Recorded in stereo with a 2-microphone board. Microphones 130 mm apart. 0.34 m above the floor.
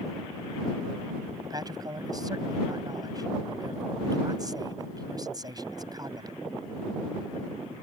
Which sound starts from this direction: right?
A man speaking, at 1.4 s.